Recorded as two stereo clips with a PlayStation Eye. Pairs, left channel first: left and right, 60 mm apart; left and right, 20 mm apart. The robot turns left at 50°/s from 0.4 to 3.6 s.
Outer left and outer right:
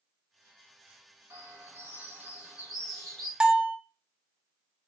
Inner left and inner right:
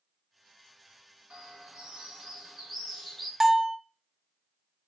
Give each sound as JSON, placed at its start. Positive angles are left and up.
{"t": 1.3, "sound": "a bird", "azimuth_deg": -100, "distance_m": 1.8}
{"t": 3.4, "sound": "a bell", "side_deg": -15, "distance_m": 0.5}